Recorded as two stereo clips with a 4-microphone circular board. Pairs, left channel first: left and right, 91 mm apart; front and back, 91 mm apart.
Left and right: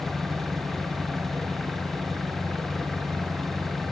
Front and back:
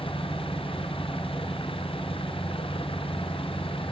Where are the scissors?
I don't hear scissors.